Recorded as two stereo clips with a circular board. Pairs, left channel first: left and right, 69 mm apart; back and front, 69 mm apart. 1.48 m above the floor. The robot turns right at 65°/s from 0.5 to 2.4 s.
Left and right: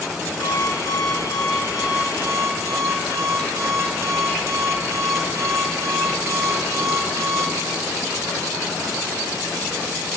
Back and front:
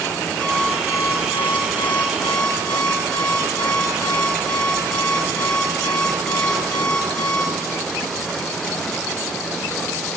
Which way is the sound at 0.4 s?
100° left.